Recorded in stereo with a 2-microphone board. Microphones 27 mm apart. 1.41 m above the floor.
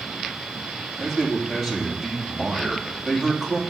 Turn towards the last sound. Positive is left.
turn(degrees=5)  # may be behind; listen again after turning